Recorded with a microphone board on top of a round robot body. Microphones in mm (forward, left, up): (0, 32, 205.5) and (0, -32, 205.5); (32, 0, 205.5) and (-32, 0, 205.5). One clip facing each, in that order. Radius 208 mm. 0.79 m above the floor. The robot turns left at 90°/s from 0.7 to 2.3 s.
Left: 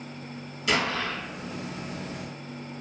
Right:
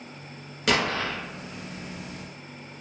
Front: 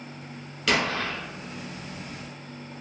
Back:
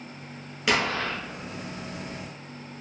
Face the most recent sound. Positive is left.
turn(degrees=105)